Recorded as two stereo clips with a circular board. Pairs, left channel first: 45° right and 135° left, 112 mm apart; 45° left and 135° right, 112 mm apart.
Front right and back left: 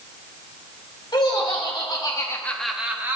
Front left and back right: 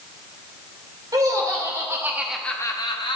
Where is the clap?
I don't hear a clap.